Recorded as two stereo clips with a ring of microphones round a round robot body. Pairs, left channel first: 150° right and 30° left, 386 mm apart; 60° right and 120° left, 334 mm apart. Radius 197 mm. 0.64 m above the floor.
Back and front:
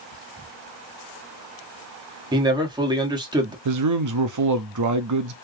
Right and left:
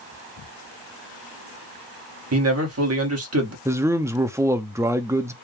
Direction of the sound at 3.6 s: 40° left.